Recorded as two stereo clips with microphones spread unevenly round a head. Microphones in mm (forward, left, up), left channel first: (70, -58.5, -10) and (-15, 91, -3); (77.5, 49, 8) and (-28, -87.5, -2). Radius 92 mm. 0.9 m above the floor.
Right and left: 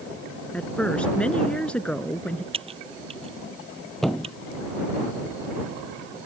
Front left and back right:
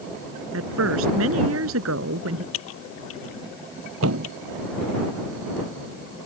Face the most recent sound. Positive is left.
turn(degrees=-150)